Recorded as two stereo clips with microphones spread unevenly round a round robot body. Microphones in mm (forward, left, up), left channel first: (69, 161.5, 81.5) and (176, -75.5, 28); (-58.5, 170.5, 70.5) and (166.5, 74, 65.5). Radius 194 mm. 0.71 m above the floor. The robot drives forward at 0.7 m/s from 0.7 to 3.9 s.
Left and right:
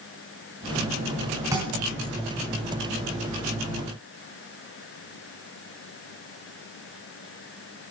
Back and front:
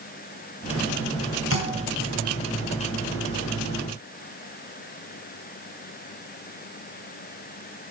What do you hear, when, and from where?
1.5 s a thud: 150° right, 3 m